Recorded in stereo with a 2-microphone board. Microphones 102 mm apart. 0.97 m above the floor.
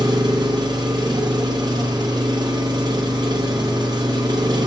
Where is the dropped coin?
No dropped coin in this recording.